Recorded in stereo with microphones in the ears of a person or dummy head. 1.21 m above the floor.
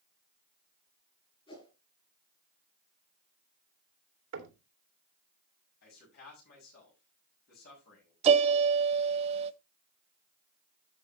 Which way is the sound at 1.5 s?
35° left (ahead or behind).